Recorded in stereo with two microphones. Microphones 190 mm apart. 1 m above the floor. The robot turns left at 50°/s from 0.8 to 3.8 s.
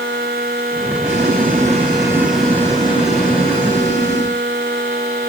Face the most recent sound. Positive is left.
turn(degrees=110)